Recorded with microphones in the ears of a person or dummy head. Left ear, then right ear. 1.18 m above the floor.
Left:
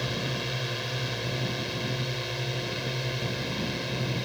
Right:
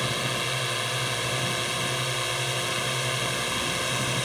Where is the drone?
30° right (ahead or behind); by 4.3 s 40° right (ahead or behind).